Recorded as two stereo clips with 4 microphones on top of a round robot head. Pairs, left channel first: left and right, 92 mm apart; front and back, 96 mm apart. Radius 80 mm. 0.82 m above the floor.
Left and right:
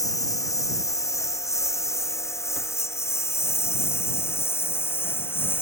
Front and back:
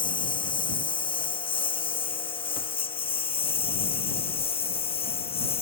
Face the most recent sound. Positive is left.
turn(degrees=20)